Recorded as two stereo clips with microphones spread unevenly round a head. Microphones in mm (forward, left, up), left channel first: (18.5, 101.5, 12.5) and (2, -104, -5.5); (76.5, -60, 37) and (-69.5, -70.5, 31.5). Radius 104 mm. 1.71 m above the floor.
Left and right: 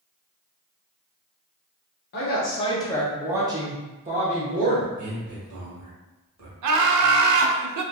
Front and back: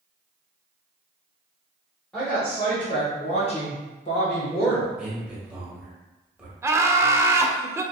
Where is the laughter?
100° right, 0.5 m.